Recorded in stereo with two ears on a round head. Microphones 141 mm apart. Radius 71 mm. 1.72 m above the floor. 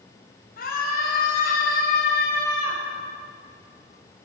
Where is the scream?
65° left (ahead or behind), 5.5 m.